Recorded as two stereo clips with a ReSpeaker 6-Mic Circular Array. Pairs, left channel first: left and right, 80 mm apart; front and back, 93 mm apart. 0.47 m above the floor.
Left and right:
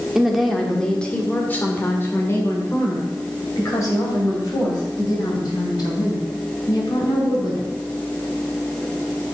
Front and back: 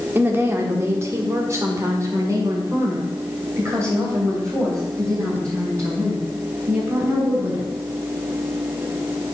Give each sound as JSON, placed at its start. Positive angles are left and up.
{"t": 0.1, "sound": "a woman speaking", "azimuth_deg": -165, "distance_m": 1.2}